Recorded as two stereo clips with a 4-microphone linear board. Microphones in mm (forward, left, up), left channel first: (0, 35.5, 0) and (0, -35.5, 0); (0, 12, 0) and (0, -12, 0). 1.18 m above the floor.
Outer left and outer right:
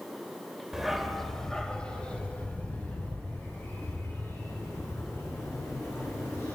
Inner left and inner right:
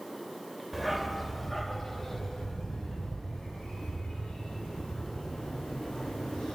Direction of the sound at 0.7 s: 5° right (ahead or behind).